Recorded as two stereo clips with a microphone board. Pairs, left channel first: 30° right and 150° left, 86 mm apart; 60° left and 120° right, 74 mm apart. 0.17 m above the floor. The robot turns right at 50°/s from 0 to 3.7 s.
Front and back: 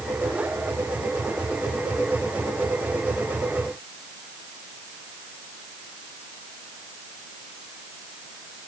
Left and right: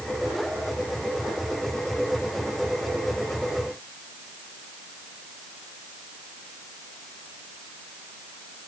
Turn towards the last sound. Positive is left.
No sound to turn to.